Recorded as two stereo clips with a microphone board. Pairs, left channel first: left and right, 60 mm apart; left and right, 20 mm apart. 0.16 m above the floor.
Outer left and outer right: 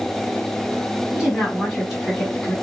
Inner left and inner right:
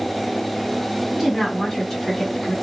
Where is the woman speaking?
20° right (ahead or behind), 1.6 m; by 2.5 s 10° left (ahead or behind), 1.5 m.